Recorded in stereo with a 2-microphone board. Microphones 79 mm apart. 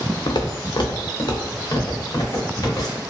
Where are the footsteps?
85° left, 0.6 m; by 3.0 s 50° left (ahead or behind), 2.5 m.